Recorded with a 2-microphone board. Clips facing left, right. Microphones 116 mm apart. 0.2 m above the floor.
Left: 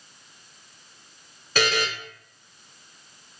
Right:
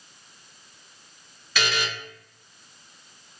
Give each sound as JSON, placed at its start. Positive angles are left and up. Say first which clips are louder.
{"t": 1.6, "sound": "a buzzer", "louder": "left 4 dB", "side_deg": 50, "distance_m": 0.5}